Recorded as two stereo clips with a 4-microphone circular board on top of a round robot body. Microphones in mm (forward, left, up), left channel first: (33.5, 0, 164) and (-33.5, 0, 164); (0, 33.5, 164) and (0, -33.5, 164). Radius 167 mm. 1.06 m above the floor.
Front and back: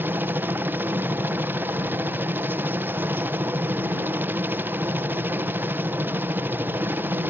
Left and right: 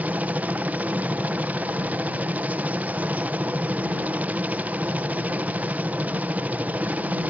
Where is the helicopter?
140° right.